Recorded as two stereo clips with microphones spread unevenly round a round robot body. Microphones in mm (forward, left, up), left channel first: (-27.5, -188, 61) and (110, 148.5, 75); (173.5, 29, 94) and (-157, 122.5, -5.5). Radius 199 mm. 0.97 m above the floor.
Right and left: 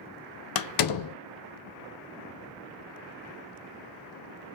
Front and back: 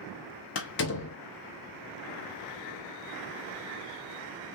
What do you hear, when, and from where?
0.6 s a door slam: 75° right, 0.7 m